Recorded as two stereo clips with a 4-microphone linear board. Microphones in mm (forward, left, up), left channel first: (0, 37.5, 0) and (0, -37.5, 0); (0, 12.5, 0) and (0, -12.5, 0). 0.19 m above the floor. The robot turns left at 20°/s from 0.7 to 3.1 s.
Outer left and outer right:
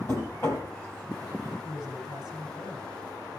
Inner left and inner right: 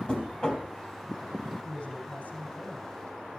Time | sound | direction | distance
0.1 | knocking | 40° left (ahead or behind) | 2.5 m
1.6 | a man speaking | 75° left (ahead or behind) | 5.5 m